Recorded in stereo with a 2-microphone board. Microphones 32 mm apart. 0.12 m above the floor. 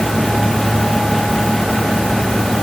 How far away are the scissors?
No scissors in this recording.